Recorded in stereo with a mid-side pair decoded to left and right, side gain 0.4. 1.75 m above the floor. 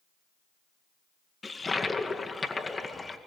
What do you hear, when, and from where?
1.4 s a toilet flushing: 30° left, 2 m